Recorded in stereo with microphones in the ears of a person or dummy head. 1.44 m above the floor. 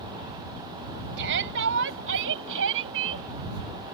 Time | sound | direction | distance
1.2 | a shout | 65° right (ahead or behind) | ?